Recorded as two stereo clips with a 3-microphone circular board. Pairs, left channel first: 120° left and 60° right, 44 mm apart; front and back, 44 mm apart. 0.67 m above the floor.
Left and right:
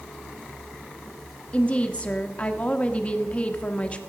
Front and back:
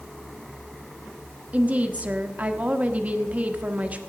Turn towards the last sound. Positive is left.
turn(degrees=160)